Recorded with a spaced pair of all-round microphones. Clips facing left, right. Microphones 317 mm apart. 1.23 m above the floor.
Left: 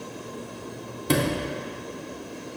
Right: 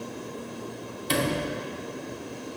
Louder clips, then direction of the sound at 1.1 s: Left 3 dB; 60° left (ahead or behind).